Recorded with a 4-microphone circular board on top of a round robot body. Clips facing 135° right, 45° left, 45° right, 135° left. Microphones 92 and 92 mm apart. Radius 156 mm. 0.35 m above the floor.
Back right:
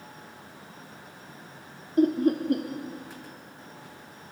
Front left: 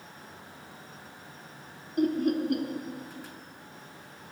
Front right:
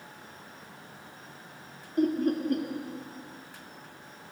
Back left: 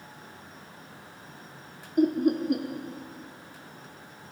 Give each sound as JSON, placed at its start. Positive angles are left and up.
{"t": 2.0, "sound": "laughter", "azimuth_deg": -155, "distance_m": 0.9}